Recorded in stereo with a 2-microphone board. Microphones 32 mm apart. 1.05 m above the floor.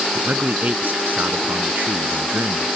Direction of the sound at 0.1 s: 55° right (ahead or behind).